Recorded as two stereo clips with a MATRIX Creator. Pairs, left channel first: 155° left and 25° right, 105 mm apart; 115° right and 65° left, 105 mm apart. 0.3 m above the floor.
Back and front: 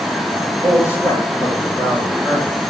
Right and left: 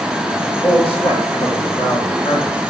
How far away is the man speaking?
About 6 m.